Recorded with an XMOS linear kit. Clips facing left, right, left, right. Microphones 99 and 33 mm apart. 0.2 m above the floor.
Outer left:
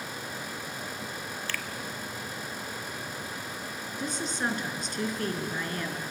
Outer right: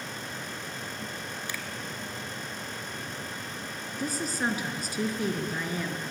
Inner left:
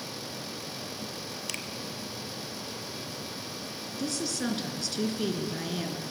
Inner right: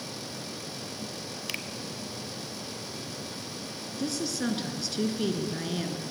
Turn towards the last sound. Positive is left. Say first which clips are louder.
# outer right 2 dB, inner right 1 dB
turn(degrees=-5)  # may be behind; listen again after turning